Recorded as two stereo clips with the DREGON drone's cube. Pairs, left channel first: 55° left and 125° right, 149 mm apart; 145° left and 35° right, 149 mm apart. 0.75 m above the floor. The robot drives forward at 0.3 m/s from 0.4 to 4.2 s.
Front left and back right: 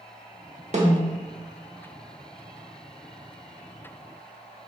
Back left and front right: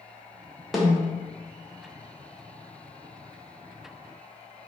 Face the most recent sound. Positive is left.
turn(degrees=-150)